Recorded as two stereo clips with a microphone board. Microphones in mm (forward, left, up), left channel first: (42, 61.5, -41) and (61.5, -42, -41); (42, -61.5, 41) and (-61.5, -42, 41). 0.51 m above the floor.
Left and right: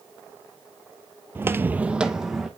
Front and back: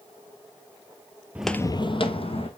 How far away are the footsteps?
About 0.5 m.